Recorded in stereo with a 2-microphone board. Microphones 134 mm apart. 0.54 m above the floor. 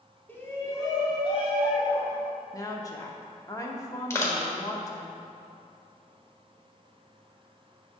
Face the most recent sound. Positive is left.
turn(degrees=20)  # may be behind; listen again after turning